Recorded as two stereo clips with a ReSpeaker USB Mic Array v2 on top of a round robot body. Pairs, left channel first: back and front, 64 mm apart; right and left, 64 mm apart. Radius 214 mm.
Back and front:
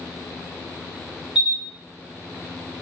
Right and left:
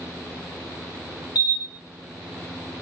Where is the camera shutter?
75° right, 2.5 m.